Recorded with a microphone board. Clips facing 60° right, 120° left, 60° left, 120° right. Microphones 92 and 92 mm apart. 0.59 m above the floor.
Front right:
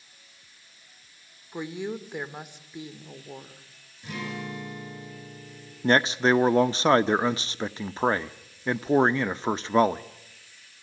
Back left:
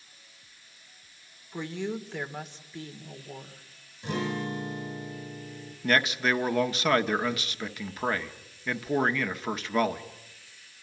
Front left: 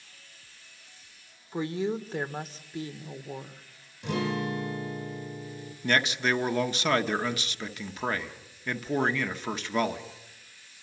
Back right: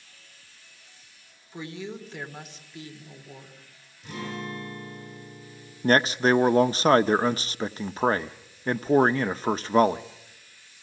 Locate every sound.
1.5 s a woman speaking: 15° left, 1.8 m
4.0 s a guitar: 60° left, 5 m
5.8 s a man speaking: 100° right, 0.7 m